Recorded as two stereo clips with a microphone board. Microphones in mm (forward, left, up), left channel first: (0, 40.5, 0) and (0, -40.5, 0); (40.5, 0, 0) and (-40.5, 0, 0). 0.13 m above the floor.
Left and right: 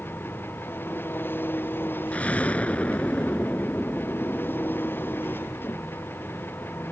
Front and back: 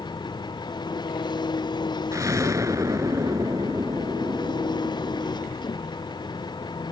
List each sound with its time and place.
0.0 s an engine running: 25° left
2.1 s an explosion: 155° left